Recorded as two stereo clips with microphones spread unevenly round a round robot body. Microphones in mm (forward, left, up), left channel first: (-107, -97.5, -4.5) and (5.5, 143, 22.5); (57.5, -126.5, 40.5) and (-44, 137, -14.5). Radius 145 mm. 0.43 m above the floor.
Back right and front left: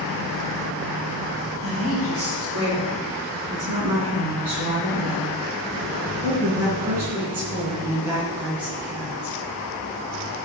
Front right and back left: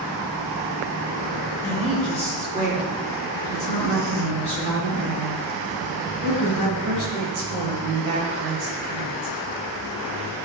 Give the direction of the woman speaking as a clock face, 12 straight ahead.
11 o'clock.